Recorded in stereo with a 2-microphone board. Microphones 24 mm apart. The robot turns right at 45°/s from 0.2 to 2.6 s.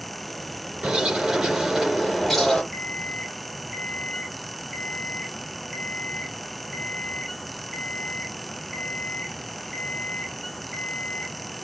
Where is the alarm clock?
5° left (ahead or behind), 4.5 m.